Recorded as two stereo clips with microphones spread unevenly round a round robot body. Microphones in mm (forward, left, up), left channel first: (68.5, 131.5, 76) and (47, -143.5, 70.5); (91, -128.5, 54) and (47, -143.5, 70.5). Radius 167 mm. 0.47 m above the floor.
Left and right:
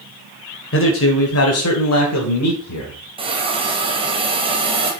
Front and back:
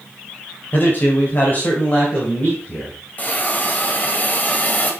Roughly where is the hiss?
Ahead right.